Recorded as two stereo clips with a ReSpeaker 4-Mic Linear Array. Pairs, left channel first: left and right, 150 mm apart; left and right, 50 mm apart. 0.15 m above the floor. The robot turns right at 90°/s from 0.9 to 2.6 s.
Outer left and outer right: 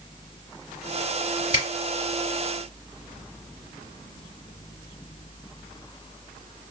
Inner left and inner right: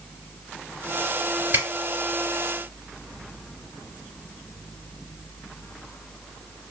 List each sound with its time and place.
1.5 s a finger snap: 40° right (ahead or behind), 1.8 m; by 1.7 s 35° right (ahead or behind), 1.8 m